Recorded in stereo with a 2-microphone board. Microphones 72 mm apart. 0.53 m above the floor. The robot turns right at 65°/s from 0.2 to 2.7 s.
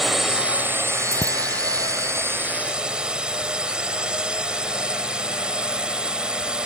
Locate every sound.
0.0 s a drone: straight behind; by 6.7 s 15° right
1.1 s a bicycle bell: 45° right (ahead or behind); by 1.4 s 65° right (ahead or behind)